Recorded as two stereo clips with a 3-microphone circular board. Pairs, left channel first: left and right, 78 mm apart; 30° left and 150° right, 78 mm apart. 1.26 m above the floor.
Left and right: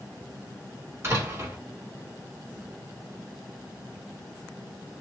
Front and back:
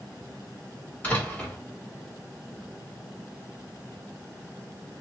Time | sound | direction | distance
1.0 | a door slam | 35° right | 1.3 m